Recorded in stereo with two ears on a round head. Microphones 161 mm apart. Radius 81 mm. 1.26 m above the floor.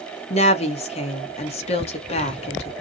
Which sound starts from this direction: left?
A woman speaking, at 0.3 s.